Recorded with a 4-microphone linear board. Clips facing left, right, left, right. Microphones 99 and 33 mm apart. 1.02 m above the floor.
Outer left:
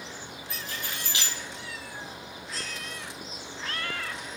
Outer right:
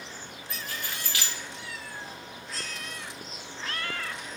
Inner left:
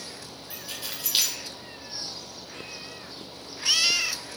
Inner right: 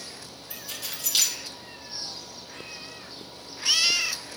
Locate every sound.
0.5 s keys jangling: 20° left (ahead or behind), 2.5 m